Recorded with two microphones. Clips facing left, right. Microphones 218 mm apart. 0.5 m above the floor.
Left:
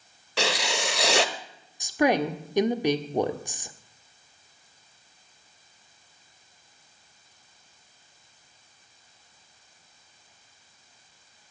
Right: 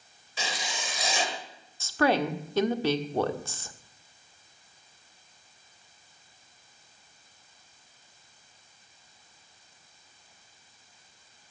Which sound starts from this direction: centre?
A woman speaking, at 1.8 s.